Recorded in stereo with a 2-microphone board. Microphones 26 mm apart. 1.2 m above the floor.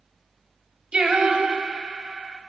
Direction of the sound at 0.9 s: 40° right (ahead or behind).